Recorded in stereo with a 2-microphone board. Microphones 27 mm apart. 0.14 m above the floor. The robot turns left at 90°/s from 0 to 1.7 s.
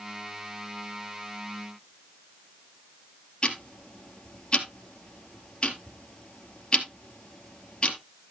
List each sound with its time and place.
3.4 s ticking: 35° left (ahead or behind), 2 m